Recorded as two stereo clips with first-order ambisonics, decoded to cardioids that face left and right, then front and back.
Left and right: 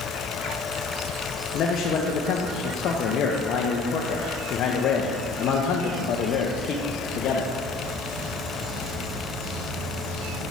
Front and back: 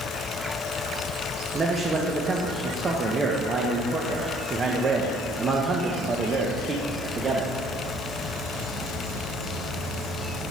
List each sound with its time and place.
1.5 s a man speaking: 115° left, 0.5 m